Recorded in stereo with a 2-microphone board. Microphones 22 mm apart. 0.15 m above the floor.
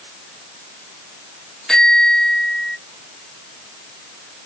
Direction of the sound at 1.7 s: 20° left (ahead or behind).